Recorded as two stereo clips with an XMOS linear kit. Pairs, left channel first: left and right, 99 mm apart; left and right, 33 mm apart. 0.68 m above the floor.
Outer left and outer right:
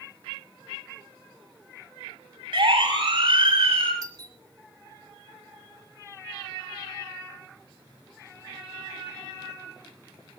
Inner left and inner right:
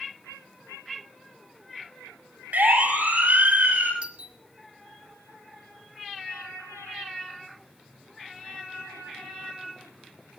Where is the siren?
65° right (ahead or behind), 8.5 m.